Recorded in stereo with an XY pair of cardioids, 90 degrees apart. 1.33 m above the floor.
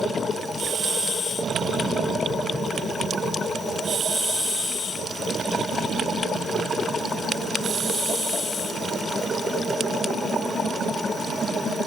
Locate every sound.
Only background noise.